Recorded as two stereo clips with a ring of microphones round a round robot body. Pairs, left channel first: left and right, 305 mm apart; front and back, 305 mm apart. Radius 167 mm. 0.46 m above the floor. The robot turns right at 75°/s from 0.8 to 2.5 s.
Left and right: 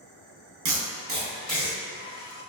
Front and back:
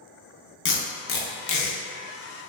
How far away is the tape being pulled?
About 0.6 m.